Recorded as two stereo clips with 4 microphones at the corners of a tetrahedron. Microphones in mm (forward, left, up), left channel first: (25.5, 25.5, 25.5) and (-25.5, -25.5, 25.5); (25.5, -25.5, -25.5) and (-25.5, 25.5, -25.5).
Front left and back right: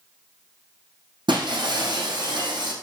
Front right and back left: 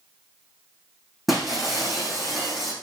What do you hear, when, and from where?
1.3 s breaking glass: 135° right, 4 m